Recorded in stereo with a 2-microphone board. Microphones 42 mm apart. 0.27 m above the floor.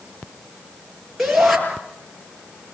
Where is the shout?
Centre (ahead or behind), 7 m.